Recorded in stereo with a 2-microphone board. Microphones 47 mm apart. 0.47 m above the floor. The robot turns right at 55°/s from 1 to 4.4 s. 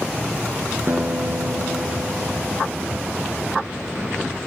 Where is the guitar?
135° right, 1.6 m; by 3.1 s 20° right, 1.6 m.